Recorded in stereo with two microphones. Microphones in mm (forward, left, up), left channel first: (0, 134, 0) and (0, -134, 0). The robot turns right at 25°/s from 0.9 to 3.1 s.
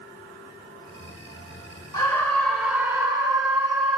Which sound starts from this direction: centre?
A scream, at 1.9 s.